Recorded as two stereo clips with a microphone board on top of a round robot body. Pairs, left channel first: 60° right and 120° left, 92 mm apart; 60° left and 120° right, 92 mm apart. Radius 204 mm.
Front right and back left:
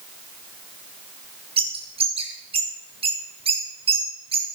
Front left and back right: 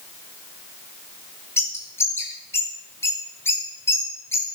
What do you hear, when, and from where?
1.6 s a bird: 125° left, 3 m